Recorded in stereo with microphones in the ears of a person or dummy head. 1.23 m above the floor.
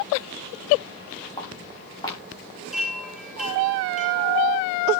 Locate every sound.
1.4 s footsteps: 25° left (ahead or behind), 7 m
2.7 s a chime: centre (ahead or behind), 6 m